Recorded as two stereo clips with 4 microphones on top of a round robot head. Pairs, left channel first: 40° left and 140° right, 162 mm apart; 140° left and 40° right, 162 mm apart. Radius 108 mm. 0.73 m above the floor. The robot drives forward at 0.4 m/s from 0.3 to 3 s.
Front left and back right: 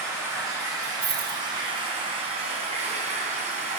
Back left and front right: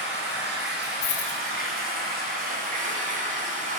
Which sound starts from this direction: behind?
A dropped coin, at 1.0 s.